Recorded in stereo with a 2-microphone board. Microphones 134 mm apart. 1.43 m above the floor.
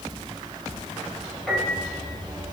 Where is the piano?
5° left (ahead or behind), 2.5 m.